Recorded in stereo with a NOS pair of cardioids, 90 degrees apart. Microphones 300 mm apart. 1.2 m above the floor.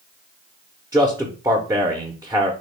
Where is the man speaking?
10° right, 0.7 m.